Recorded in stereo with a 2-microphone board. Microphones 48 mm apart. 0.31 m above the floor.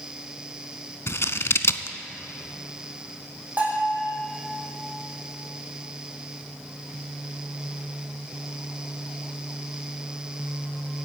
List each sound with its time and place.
1.1 s scissors: 65° left (ahead or behind), 0.5 m
3.6 s a bell: 35° right (ahead or behind), 4 m